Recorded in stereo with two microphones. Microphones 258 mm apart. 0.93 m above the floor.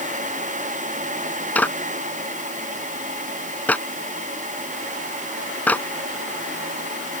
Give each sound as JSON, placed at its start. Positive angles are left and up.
{"t": 1.6, "sound": "a clap", "side_deg": 5}